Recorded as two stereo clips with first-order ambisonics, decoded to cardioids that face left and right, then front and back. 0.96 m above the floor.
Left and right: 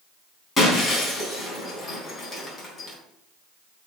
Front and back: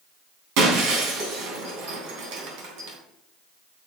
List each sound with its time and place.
0.6 s breaking glass: 165° left, 3 m